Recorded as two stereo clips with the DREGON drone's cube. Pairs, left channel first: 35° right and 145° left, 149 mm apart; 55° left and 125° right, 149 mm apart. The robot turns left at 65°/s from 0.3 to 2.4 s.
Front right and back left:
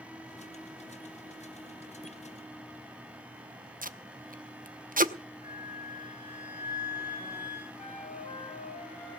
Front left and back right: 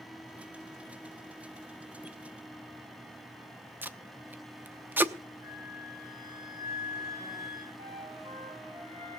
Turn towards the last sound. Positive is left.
turn(degrees=-75)